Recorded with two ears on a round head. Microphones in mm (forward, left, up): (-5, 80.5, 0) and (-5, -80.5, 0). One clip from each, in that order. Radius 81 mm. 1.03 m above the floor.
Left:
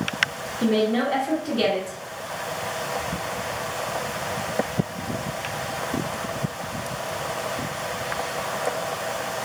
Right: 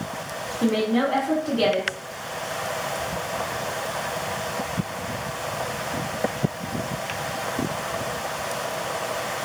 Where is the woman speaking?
80° left, 1.0 m.